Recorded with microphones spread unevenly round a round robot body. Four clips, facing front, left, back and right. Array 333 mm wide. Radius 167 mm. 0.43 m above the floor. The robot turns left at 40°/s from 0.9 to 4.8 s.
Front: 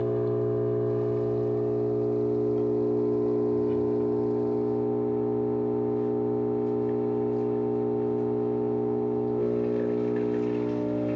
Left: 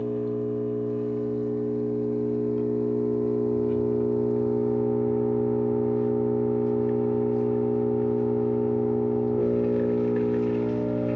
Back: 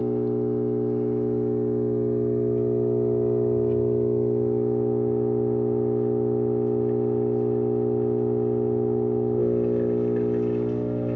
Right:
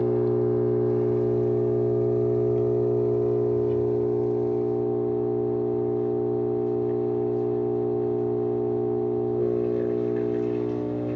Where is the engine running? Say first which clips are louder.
Right 5 dB, back 2 dB; 85° right, 1.2 m; by 11.2 s 120° left, 1.2 m.